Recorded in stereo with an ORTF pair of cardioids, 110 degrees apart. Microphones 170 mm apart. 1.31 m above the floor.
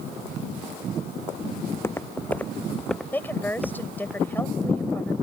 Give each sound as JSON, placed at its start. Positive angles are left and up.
{"t": 1.6, "sound": "footsteps", "azimuth_deg": 15}
{"t": 3.1, "sound": "a woman speaking", "azimuth_deg": 10}